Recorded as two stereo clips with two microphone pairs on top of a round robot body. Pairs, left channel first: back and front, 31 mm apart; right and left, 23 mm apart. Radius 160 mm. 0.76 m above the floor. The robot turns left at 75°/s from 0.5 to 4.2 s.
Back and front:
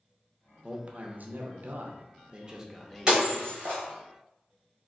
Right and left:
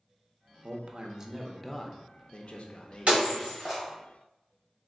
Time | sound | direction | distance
0.6 | a man speaking | 70° left | 0.6 m
3.1 | breaking glass | 65° left | 1.2 m